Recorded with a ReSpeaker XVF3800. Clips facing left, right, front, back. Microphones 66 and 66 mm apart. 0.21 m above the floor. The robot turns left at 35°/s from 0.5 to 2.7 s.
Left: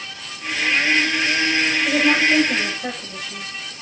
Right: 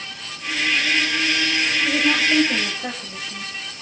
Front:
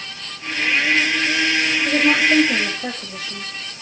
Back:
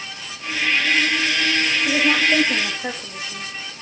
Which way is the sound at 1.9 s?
25° left.